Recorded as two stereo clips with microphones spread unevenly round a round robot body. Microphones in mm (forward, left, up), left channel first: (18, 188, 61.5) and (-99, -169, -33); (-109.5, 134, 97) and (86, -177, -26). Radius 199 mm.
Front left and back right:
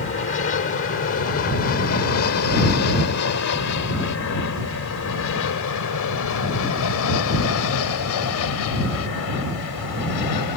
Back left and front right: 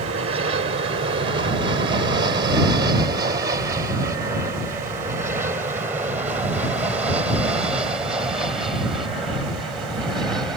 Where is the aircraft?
5° left; by 10.6 s 30° left.